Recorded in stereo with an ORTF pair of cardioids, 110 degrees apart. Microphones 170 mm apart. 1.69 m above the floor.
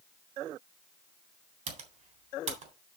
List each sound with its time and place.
1.7 s typing on a keyboard: 45° right, 3.5 m